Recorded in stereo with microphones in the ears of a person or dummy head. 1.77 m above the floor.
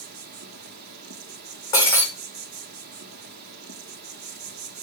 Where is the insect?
55° right (ahead or behind), 1.2 m.